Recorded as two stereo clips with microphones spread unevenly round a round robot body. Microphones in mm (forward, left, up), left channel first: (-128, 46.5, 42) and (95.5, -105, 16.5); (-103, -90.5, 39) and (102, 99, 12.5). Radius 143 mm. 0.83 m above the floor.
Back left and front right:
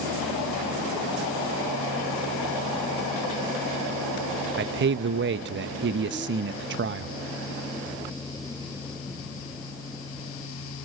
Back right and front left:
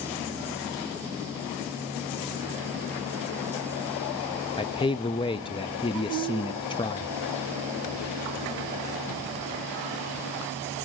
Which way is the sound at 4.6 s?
65° right.